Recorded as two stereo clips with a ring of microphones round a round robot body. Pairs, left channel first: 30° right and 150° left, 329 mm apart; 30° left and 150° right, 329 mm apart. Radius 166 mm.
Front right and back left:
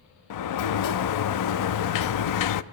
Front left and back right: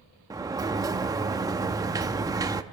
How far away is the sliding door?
About 0.7 m.